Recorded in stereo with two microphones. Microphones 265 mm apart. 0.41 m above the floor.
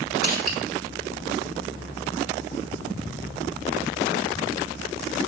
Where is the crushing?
35° left (ahead or behind), 1.2 m.